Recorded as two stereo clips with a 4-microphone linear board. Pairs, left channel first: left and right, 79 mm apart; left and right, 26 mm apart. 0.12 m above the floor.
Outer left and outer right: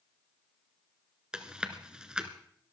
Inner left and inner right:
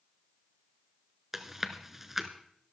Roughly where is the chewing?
Centre.